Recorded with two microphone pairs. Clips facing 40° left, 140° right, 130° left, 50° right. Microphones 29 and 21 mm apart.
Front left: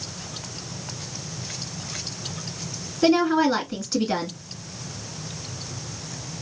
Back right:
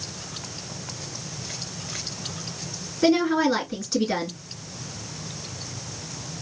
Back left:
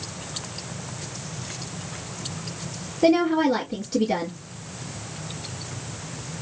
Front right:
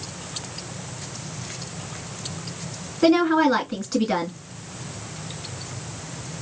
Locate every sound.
3.0 s a woman speaking: 35° right, 2 m